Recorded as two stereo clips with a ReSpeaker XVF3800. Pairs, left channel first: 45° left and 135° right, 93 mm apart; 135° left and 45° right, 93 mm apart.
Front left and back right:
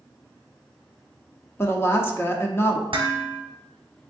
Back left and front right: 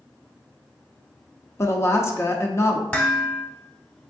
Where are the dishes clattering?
145° right, 0.8 m.